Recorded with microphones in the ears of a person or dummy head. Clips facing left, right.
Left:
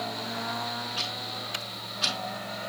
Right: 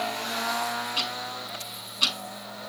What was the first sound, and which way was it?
Ticking, 50° right (ahead or behind).